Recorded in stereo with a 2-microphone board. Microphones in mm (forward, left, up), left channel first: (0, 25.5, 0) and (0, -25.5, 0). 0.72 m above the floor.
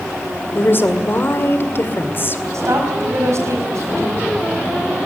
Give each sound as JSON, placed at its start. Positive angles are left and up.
{"t": 0.6, "sound": "a woman speaking", "side_deg": 45, "distance_m": 2.0}
{"t": 2.5, "sound": "a woman speaking", "side_deg": -70, "distance_m": 5.0}